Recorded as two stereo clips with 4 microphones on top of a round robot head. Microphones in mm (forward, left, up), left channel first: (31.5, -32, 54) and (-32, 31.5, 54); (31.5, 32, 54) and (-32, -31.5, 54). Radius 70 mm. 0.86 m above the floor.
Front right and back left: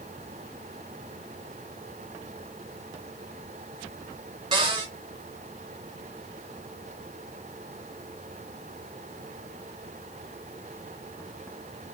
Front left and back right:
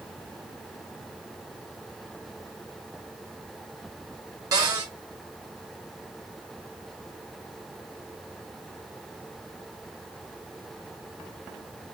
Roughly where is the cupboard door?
Behind.